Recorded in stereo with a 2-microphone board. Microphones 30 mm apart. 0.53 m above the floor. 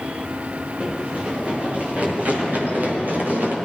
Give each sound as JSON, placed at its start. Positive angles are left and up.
{"t": 0.8, "sound": "running footsteps", "side_deg": -35, "distance_m": 7.5}